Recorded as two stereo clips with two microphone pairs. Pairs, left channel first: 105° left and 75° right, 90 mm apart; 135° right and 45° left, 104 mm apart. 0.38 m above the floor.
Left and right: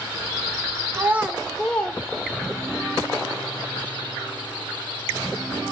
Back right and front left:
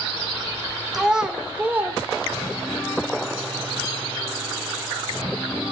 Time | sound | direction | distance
0.9 | a child speaking | 40° right | 1.0 m